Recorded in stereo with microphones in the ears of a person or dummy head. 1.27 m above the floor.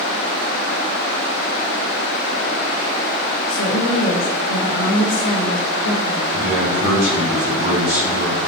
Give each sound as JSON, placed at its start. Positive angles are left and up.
{"t": 3.5, "sound": "a woman speaking", "side_deg": 75, "distance_m": 1.4}
{"t": 6.3, "sound": "a man speaking", "side_deg": -60, "distance_m": 3.5}